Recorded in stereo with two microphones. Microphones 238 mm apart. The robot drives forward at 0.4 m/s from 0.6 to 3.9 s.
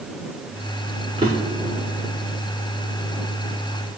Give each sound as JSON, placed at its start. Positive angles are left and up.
{"t": 1.2, "sound": "a drawer", "side_deg": -25, "distance_m": 5.0}